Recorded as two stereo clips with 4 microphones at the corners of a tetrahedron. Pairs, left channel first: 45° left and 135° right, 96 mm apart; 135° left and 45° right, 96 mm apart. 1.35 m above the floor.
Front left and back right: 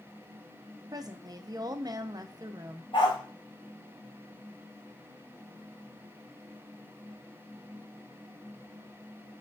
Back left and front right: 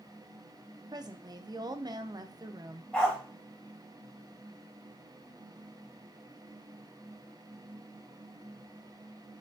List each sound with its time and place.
0.9 s a woman speaking: 90° right, 0.5 m
2.9 s a dog barking: 55° left, 1.9 m